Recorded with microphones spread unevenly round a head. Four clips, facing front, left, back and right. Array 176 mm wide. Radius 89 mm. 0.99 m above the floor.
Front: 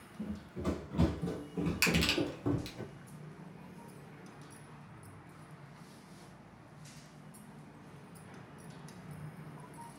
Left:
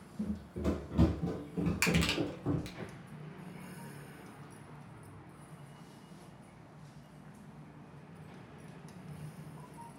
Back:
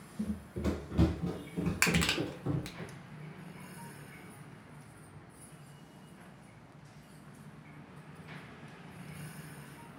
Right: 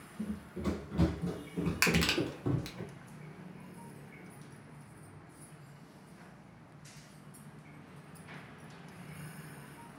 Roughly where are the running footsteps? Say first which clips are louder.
Left 1 dB, back 3 dB; behind left.